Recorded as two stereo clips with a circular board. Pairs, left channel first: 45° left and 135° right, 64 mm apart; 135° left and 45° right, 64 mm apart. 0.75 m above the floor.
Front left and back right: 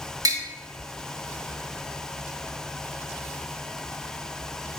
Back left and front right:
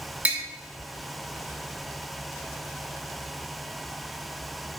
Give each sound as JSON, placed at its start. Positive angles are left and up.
{"t": 0.2, "sound": "tapping", "azimuth_deg": -110, "distance_m": 0.7}